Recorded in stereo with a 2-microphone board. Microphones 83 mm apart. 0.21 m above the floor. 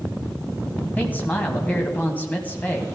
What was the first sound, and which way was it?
A man speaking, 20° left (ahead or behind).